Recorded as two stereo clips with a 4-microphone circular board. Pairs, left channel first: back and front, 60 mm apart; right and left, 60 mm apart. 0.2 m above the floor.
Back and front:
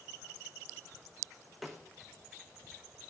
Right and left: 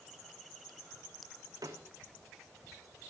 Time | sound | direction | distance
1.6 | a snare drum | 90° left | 2.5 m